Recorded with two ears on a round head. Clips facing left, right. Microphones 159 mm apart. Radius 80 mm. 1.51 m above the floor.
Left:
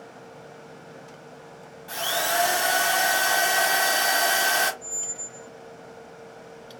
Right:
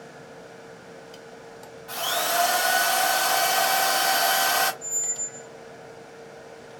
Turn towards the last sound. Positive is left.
turn(degrees=-30)  # may be behind; listen again after turning